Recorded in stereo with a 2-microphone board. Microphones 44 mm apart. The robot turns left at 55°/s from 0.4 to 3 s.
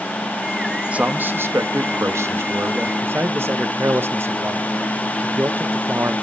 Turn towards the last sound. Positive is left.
turn(degrees=-60)  # may be behind; listen again after turning